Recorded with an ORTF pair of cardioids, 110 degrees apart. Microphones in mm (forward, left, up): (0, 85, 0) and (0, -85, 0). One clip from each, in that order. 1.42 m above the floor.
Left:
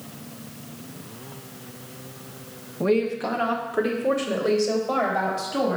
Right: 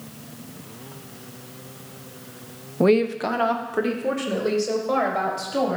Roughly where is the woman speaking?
Ahead right.